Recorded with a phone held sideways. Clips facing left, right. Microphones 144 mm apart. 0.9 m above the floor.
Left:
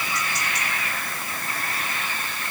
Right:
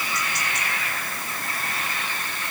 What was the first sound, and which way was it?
Only background noise.